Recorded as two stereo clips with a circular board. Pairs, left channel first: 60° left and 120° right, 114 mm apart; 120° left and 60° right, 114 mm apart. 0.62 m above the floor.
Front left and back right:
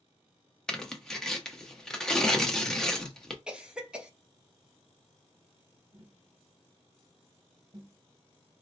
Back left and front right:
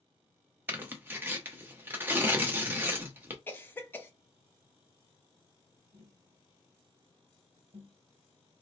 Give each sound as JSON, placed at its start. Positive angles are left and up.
{"t": 0.7, "sound": "tearing paper", "azimuth_deg": -15, "distance_m": 0.6}
{"t": 3.5, "sound": "a cough", "azimuth_deg": 165, "distance_m": 0.6}
{"t": 5.9, "sound": "tapping", "azimuth_deg": -75, "distance_m": 0.9}